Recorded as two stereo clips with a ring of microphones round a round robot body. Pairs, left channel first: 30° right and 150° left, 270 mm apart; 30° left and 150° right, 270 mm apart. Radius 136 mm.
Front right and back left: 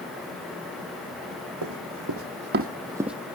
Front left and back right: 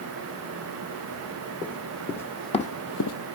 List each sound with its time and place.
1.6 s running footsteps: 125° left, 2 m; by 3.2 s 60° left, 1.1 m